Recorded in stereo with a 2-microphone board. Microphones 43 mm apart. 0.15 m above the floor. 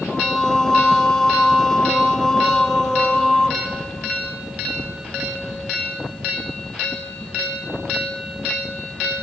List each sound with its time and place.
0.1 s singing: 15° left (ahead or behind), 0.6 m